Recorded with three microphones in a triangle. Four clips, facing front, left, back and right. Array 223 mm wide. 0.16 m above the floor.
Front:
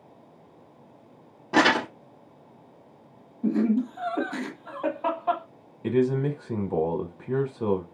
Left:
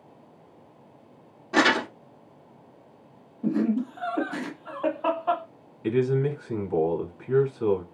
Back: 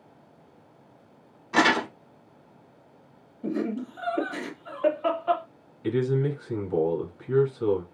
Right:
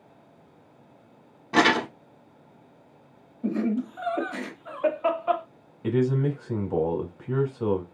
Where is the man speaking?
35° right, 1.2 m.